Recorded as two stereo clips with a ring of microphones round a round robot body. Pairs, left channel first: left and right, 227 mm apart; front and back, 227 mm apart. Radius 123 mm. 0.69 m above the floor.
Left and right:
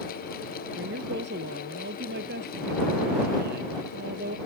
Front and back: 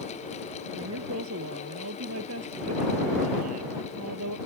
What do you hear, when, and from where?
0.8 s a woman speaking: 140° right; by 4.4 s 145° right